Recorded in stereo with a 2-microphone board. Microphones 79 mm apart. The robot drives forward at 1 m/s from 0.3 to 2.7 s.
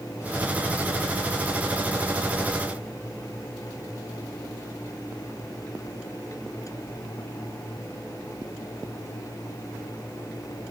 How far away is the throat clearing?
I don't hear throat clearing.